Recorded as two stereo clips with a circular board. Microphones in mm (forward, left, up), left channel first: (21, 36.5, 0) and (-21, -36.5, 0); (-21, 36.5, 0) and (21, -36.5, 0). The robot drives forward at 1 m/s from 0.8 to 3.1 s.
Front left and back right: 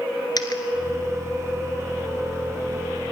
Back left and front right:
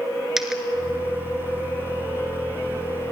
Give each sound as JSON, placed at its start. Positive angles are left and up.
{"t": 0.4, "sound": "a dropped coin", "azimuth_deg": 25, "distance_m": 1.7}